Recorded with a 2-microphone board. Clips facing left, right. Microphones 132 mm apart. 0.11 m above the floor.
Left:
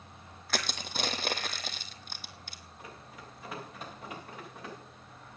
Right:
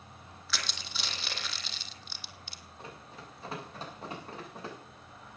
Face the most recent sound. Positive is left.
turn(degrees=-35)  # may be behind; listen again after turning